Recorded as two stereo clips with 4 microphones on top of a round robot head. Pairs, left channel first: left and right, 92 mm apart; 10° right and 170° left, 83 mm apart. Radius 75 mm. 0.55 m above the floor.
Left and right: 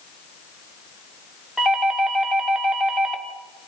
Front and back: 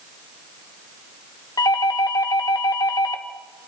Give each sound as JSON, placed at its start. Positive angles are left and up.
{"t": 1.6, "sound": "a doorbell", "azimuth_deg": -10, "distance_m": 2.5}